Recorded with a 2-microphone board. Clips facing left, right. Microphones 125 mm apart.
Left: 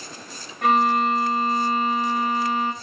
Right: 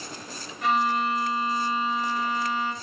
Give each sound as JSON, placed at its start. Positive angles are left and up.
{"t": 0.6, "sound": "a violin", "side_deg": 55, "distance_m": 2.0}